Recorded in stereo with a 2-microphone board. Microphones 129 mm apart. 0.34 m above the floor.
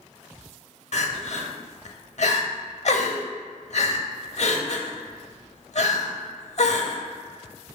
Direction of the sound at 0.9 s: 60° left (ahead or behind).